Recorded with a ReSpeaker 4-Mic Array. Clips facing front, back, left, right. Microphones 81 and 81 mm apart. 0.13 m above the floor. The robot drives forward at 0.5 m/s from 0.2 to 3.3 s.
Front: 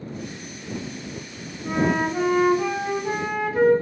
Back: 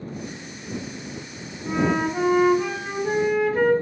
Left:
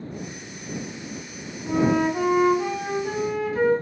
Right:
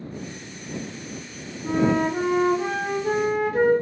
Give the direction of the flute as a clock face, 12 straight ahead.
3 o'clock.